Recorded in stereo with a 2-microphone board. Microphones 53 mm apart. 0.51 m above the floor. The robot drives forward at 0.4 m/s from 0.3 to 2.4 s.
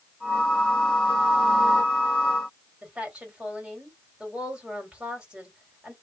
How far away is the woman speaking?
About 1.8 m.